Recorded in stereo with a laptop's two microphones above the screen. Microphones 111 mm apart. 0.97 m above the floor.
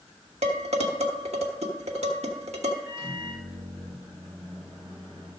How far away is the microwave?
About 4 m.